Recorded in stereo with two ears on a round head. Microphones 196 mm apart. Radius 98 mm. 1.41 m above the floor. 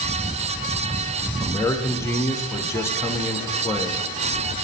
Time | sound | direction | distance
1.4 | a man speaking | 10° left (ahead or behind) | 0.5 m